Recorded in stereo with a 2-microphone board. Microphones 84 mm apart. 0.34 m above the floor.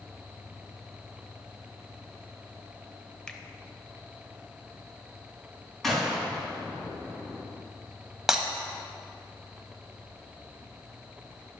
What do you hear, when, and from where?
3.3 s a finger snap: 10° left (ahead or behind), 1.0 m
5.8 s a gunshot: 5° left (ahead or behind), 3.5 m
8.3 s breaking glass: 5° right (ahead or behind), 1.2 m